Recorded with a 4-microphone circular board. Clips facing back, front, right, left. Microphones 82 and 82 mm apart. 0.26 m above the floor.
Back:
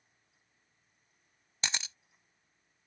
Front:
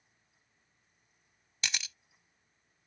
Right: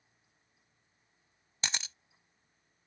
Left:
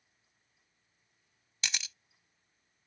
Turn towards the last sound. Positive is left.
turn(degrees=-130)